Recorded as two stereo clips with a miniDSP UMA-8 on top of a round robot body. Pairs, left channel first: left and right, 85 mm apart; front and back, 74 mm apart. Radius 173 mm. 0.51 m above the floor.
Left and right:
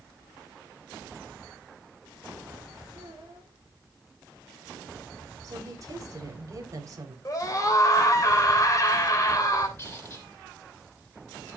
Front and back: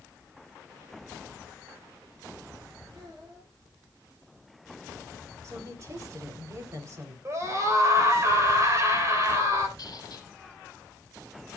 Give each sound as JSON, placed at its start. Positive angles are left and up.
{"t": 2.9, "sound": "a child speaking", "azimuth_deg": -145, "distance_m": 8.0}
{"t": 5.4, "sound": "a woman speaking", "azimuth_deg": -135, "distance_m": 3.5}
{"t": 7.2, "sound": "a scream", "azimuth_deg": 135, "distance_m": 3.5}
{"t": 9.8, "sound": "a squeak", "azimuth_deg": 35, "distance_m": 2.5}